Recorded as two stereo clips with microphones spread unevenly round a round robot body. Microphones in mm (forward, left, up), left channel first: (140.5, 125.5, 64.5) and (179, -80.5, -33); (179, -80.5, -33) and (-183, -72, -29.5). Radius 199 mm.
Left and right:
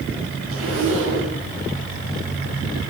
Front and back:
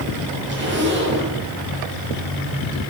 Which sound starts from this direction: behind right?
A zipper, at 0.5 s.